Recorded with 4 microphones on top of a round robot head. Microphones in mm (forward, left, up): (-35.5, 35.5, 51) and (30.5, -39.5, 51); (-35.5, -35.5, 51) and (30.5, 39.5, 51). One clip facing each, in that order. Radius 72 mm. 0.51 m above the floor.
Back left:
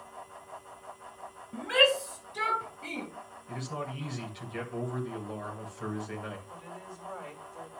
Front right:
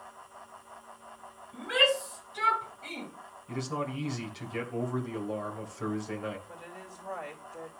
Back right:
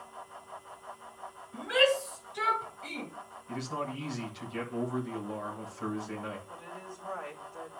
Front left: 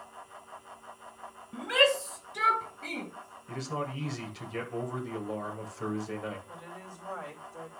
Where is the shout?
80° left, 3.5 m; by 3.1 s 85° left, 4.5 m.